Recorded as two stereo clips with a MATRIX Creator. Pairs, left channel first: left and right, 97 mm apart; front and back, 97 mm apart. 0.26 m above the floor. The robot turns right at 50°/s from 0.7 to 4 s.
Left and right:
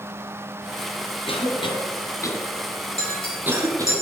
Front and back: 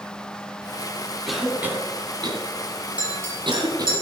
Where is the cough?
90° left, 2.5 m; by 4.0 s 135° right, 2.5 m.